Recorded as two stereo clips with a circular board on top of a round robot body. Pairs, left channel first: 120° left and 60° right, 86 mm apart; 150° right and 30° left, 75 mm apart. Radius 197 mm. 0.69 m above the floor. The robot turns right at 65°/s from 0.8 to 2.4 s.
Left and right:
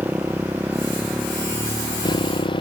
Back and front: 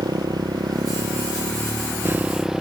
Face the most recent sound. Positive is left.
turn(degrees=115)